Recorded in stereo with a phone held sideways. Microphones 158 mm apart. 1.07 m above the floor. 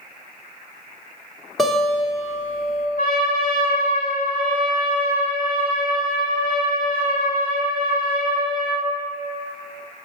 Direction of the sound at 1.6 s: Centre (ahead or behind).